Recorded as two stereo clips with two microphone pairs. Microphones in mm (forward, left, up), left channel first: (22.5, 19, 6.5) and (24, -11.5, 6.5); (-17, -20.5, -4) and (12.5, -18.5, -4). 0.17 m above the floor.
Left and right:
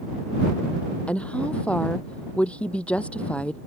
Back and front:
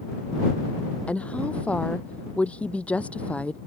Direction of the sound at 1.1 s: 140° left.